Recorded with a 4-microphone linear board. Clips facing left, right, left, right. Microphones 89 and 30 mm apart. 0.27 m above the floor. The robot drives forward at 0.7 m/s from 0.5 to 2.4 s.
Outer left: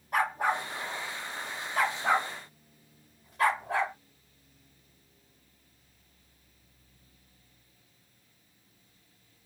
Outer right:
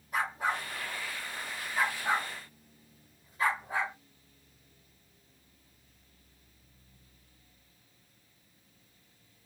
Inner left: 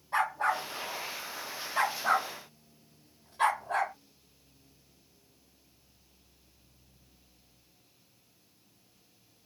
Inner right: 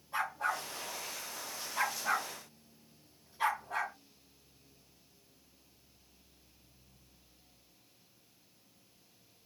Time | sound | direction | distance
0.1 | a dog barking | 60° left (ahead or behind) | 4.5 m